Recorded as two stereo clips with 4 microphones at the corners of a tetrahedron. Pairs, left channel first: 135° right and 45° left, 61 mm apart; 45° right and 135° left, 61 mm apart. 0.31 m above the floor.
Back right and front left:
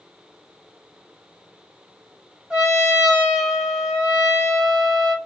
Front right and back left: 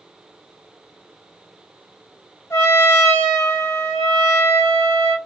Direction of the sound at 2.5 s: 25° right.